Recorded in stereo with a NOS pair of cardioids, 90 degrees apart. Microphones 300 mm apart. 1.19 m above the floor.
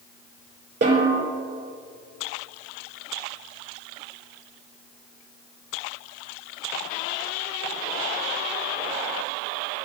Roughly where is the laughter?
I don't hear laughter.